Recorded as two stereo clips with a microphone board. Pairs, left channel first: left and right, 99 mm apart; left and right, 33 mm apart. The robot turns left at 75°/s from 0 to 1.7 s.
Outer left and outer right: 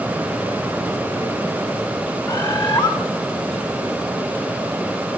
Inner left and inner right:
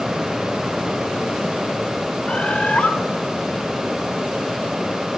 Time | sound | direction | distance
2.3 | a bird | 45° left (ahead or behind) | 1.5 m